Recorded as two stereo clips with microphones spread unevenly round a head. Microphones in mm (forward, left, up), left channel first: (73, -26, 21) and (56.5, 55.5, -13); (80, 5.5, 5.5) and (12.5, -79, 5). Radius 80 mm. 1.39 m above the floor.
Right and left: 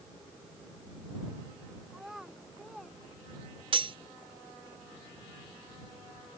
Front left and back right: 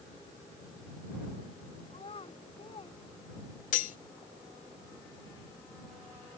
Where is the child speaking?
15° left; by 3.0 s 10° left.